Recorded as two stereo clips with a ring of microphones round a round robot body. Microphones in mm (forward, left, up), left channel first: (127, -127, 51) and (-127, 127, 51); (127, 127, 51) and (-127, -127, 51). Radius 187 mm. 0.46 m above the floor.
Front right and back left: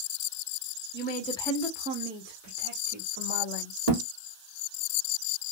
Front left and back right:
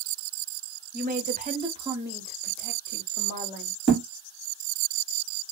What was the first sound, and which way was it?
A woman speaking, 85° right.